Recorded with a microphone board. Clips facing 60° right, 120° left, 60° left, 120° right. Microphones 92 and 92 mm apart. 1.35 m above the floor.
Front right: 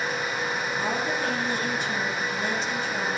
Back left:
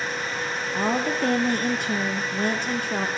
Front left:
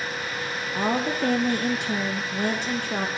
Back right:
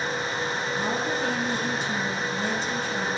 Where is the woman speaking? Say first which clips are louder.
Back left 6 dB, front left 5 dB; 90° left, 0.7 m.